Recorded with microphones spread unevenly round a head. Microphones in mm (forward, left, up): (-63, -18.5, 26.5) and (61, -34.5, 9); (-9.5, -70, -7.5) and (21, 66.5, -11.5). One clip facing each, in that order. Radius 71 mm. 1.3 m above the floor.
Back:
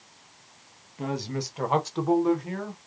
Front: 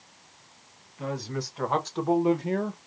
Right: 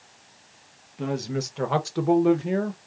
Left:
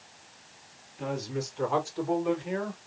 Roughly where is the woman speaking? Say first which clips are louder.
Back 2 dB, right 5 dB; behind right.